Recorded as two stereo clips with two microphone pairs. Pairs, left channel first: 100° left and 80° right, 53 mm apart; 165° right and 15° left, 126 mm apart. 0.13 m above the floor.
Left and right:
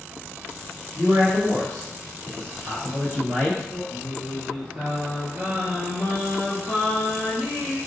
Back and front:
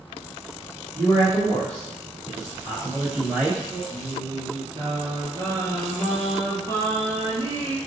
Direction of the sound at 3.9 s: 35° right.